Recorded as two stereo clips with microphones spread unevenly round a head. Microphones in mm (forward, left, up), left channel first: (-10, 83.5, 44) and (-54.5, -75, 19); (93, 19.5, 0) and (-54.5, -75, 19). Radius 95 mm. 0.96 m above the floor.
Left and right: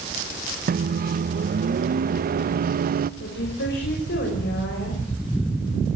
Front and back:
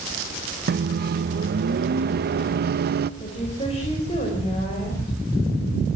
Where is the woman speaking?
95° left, 5.5 m.